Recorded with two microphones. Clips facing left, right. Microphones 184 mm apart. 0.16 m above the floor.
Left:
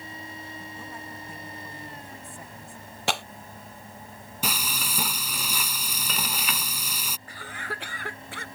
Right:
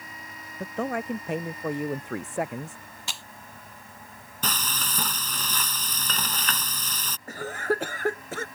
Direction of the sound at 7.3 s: 45° right (ahead or behind).